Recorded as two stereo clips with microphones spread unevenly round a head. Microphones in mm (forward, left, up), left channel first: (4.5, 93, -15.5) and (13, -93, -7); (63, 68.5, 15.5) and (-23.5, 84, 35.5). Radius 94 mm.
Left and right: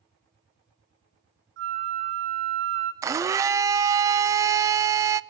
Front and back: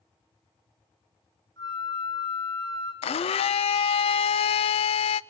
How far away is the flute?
About 2.5 m.